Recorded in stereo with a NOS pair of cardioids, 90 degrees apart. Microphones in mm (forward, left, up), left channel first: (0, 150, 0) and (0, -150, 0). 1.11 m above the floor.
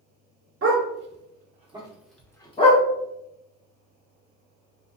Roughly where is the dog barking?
Ahead right.